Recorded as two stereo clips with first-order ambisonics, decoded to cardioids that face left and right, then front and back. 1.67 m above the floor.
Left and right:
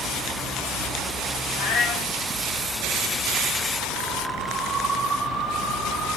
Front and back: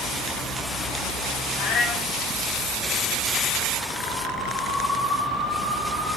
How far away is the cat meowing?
About 3.5 m.